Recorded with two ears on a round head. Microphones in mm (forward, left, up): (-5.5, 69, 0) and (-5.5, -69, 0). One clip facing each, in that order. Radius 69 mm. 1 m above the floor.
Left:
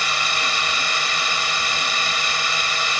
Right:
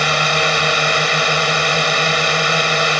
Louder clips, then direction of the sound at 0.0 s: Right 9 dB; 50° right (ahead or behind).